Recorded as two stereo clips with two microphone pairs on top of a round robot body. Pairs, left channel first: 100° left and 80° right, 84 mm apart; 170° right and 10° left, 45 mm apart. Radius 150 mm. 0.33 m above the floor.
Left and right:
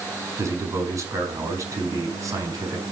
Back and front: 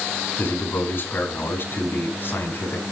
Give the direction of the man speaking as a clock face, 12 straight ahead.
4 o'clock.